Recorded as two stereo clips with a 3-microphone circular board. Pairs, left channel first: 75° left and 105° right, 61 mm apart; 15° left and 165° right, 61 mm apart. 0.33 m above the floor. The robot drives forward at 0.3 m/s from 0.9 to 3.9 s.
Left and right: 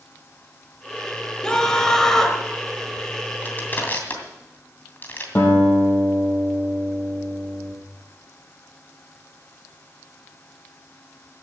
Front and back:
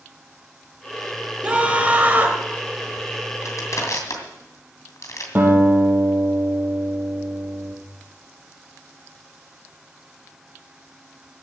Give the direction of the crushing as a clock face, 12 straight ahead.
11 o'clock.